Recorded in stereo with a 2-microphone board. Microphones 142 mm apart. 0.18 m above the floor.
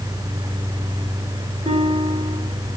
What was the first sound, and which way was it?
A guitar, 45° right (ahead or behind).